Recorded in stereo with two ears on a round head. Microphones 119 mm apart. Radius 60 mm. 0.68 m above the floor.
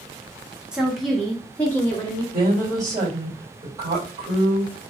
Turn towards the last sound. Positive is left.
turn(degrees=-25)  # may be behind; listen again after turning